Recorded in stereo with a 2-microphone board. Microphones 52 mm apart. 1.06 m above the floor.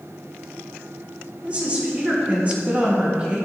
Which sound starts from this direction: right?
A woman speaking, at 1.4 s.